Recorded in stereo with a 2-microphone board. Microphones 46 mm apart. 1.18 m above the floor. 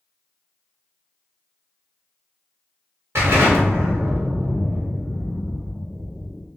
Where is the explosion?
60° right (ahead or behind), 1.6 m.